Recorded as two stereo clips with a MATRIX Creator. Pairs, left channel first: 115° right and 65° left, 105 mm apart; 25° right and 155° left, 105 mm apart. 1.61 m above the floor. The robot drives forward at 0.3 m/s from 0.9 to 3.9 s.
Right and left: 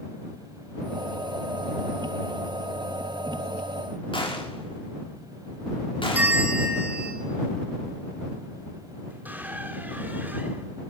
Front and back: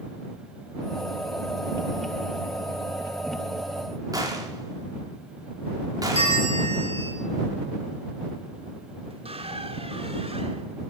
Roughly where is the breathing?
No breathing in this recording.